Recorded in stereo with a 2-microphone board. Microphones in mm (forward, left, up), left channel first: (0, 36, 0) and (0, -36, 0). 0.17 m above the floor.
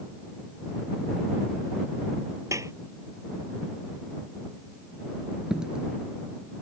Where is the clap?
45° right (ahead or behind).